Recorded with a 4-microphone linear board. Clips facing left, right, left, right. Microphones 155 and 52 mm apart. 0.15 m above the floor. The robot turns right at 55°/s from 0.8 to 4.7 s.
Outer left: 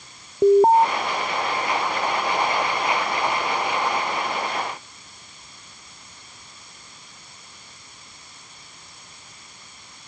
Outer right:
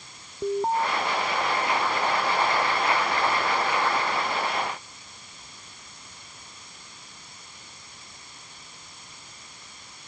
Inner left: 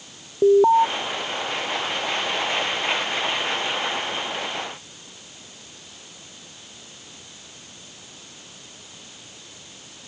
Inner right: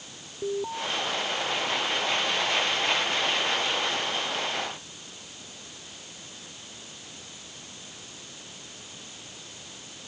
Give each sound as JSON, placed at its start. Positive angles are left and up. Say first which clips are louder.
{"t": 0.4, "sound": "an alarm", "louder": "outer left 12 dB, inner left 16 dB", "side_deg": 60}